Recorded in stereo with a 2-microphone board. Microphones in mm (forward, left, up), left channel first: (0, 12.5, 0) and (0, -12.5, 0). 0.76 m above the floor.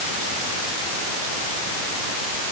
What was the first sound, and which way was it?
Only background noise.